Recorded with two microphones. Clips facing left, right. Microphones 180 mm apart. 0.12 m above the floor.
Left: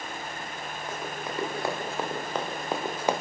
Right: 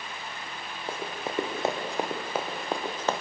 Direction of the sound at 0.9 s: 30° right (ahead or behind).